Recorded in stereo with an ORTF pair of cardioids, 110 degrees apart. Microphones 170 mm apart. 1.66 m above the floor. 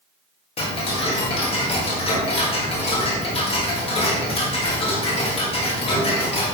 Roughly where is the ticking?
Ahead left.